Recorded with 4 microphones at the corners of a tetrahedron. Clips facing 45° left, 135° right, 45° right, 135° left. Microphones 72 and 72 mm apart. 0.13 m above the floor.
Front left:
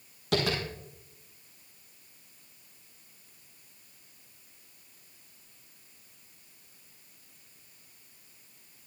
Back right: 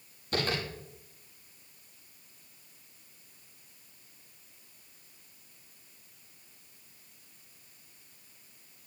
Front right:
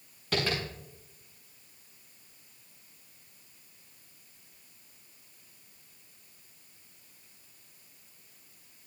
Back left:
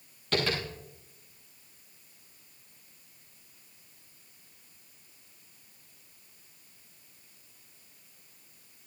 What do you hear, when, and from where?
0.3 s tapping: 35° left, 6.5 m